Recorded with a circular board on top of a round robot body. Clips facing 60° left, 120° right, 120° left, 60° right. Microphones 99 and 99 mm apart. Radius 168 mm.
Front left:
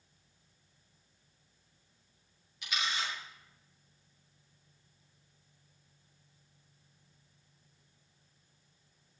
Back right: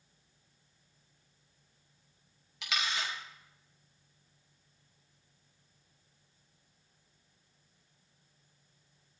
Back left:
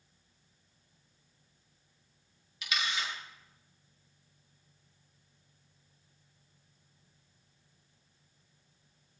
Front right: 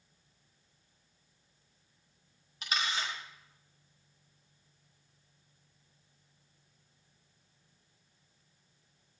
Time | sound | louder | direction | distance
2.6 | a camera shutter | back right 1 dB, front right 1 dB | 115° right | 5.5 m